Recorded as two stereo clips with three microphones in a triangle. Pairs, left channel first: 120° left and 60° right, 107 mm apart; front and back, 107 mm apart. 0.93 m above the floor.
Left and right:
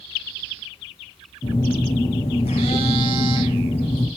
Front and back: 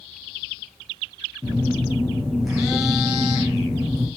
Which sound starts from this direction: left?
A phone buzzing, at 1.4 s.